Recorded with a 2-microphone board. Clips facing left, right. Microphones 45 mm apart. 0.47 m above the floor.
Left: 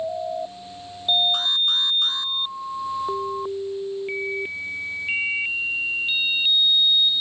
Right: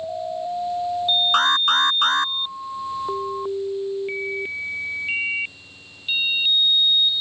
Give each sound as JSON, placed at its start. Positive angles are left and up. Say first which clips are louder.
{"t": 1.3, "sound": "an alarm", "louder": "right 6 dB", "side_deg": -65}